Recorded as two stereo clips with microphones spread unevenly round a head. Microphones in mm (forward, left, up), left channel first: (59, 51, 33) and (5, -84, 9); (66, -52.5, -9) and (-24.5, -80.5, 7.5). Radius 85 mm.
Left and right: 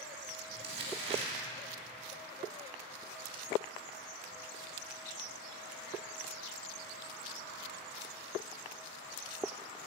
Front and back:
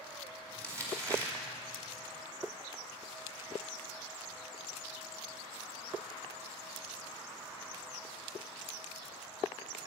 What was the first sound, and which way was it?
Crumpling, 110° right.